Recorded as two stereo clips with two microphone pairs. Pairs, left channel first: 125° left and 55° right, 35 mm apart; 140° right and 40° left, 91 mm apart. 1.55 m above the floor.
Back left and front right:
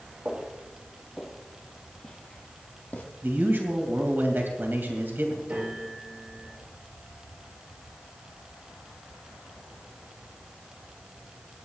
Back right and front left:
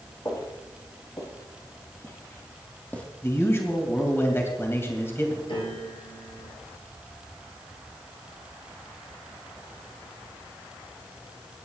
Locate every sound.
0.2 s footsteps: 105° right, 2.5 m; by 3.0 s 150° left, 3 m
3.2 s a man speaking: 75° right, 2.5 m
5.5 s a piano: 115° right, 7.5 m